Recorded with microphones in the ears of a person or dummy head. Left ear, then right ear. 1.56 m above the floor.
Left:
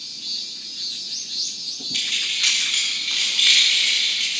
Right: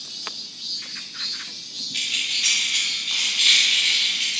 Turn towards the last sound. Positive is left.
turn(degrees=5)  # may be behind; listen again after turning